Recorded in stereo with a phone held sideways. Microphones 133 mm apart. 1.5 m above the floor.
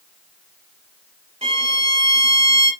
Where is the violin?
50° right (ahead or behind), 3.5 m.